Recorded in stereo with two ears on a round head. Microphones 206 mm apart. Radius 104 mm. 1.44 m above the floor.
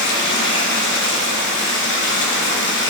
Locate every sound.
0.0 s running water: 55° left (ahead or behind), 1.2 m